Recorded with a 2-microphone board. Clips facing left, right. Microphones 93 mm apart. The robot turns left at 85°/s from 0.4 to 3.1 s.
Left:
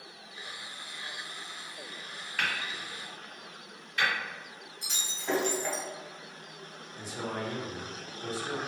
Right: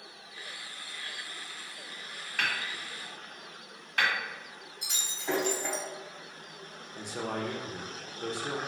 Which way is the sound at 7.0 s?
60° right (ahead or behind).